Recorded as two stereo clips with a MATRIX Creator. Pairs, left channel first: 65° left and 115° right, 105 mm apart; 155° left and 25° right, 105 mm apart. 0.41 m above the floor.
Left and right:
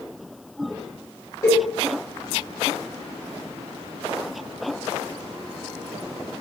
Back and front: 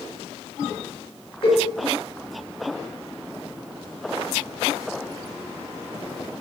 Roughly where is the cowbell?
Behind left.